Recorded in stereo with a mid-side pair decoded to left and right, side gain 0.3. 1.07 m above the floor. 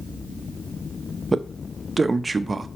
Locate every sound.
1.3 s a man speaking: 35° right, 0.8 m